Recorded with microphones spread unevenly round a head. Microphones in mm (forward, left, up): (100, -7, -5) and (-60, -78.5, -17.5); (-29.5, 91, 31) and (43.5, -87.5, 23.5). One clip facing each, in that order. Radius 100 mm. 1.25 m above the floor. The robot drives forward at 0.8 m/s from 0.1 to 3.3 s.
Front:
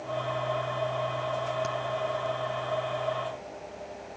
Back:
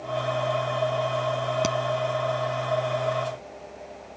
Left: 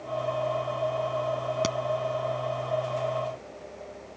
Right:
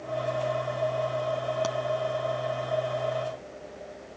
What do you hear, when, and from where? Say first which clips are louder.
1.6 s a crack: back 6 dB, even; 175° left